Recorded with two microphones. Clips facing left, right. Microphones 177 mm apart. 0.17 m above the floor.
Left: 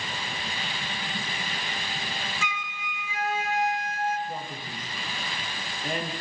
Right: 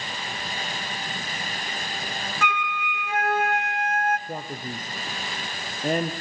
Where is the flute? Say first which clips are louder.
Right 8 dB; 65° right (ahead or behind), 1.0 m.